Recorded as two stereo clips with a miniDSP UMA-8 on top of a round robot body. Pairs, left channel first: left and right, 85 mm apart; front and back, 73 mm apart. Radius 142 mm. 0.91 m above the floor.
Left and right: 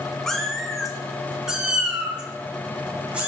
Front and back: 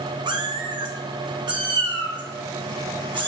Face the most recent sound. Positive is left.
turn(degrees=-170)